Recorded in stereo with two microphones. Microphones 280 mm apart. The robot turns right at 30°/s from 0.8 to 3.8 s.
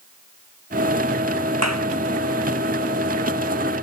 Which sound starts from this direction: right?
A clap, at 1.6 s.